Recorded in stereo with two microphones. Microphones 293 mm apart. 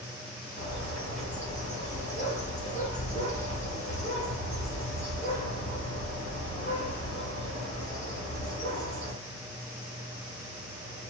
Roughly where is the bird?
Left.